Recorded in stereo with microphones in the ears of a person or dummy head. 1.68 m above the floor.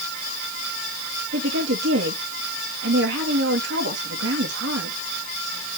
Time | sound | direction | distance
1.3 | a woman speaking | 65° right (ahead or behind) | 2.5 m